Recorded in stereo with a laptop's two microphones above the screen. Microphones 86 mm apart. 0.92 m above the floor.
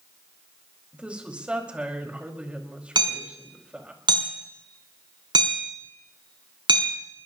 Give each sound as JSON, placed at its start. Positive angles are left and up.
{"t": 0.9, "sound": "a woman speaking", "side_deg": -15, "distance_m": 4.5}
{"t": 3.0, "sound": "hammering", "side_deg": -65, "distance_m": 6.5}